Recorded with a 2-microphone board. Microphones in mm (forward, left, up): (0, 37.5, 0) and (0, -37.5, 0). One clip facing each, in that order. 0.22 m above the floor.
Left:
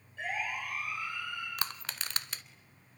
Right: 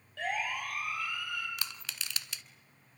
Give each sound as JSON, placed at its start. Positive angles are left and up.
{"t": 0.2, "sound": "a siren", "side_deg": -70, "distance_m": 6.5}
{"t": 1.6, "sound": "crushing", "side_deg": 45, "distance_m": 0.8}